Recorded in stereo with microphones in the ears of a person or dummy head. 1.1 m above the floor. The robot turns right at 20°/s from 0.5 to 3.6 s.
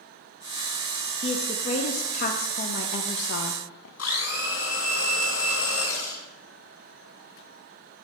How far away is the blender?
About 2.5 m.